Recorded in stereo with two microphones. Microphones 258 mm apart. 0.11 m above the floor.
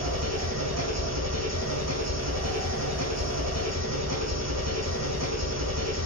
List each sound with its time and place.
0.0 s an engine running: 80° right, 4.5 m